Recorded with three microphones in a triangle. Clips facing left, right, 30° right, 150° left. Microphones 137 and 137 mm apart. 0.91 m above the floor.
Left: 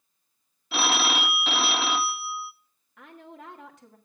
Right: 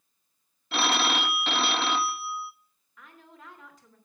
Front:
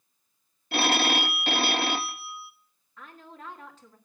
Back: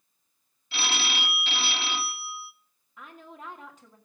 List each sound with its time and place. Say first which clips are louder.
0.7 s a phone ringing: even, front 8 dB; 5° left, 0.6 m
3.0 s a woman speaking: left 6 dB, back 1 dB; 75° left, 1.7 m